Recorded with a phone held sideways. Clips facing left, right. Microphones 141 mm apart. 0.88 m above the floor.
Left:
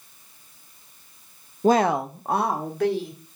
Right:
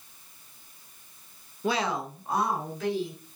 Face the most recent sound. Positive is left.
turn(degrees=60)  # may be behind; listen again after turning